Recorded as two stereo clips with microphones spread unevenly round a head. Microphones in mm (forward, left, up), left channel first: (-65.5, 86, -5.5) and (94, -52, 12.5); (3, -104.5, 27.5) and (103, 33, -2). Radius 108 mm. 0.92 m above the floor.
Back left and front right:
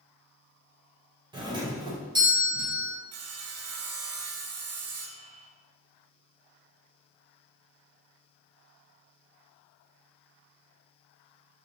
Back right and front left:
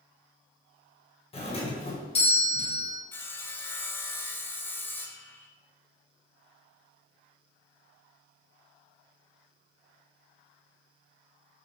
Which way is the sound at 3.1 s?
45° right.